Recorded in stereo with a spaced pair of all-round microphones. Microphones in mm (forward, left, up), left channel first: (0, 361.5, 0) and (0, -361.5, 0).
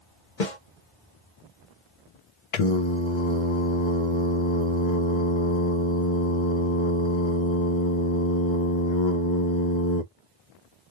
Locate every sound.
0.4 s a snare drum: 85° left, 1.2 m
2.5 s singing: 45° left (ahead or behind), 0.5 m